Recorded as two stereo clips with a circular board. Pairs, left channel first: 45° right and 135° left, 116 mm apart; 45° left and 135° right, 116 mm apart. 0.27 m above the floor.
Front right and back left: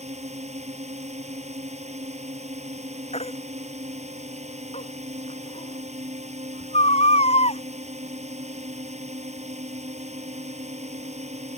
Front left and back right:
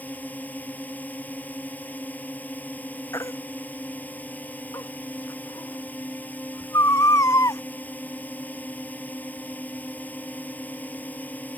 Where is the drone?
120° left.